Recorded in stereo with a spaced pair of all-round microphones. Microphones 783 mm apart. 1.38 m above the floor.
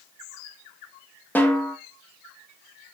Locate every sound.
1.4 s a snare drum: centre (ahead or behind), 1.5 m